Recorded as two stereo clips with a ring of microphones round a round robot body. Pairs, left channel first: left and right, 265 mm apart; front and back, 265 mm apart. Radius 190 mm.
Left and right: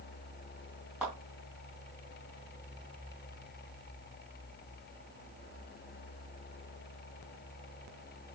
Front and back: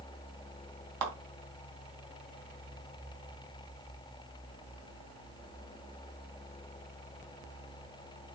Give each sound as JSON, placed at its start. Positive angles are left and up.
{"t": 1.0, "sound": "a clap", "azimuth_deg": -175, "distance_m": 3.0}